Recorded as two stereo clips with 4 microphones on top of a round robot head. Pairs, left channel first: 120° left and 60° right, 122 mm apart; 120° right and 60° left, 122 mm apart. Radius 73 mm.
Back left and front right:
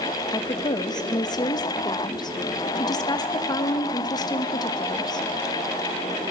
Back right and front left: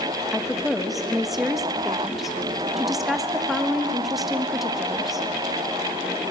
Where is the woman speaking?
145° left, 1.1 m.